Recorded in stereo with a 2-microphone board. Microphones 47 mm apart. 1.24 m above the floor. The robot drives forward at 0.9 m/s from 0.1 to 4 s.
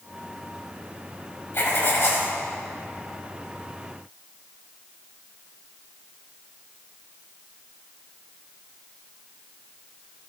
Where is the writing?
55° left (ahead or behind), 1.8 m; by 2.3 s 60° left (ahead or behind), 1.8 m.